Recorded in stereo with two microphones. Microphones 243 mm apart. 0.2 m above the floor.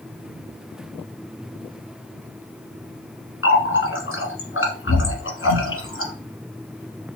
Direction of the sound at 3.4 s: 60° left (ahead or behind).